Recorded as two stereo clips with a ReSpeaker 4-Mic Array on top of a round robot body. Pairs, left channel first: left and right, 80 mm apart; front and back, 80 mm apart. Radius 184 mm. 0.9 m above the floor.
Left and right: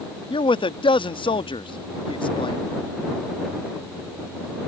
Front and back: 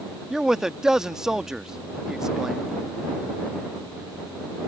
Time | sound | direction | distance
0.3 | a man speaking | 95° left | ?